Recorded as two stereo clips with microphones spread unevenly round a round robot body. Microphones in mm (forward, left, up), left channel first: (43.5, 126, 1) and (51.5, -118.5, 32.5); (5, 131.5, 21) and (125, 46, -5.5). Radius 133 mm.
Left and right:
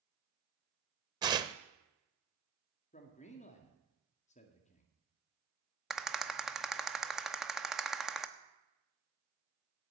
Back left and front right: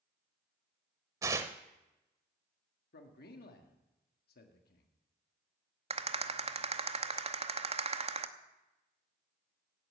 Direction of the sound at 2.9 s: 150° left.